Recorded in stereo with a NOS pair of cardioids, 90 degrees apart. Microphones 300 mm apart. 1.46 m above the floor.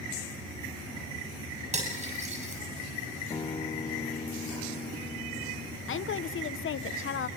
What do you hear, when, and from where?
1.7 s cutlery clinking: 25° right, 7 m
3.3 s a guitar: 15° left, 0.6 m
5.9 s a woman speaking: 45° left, 1.0 m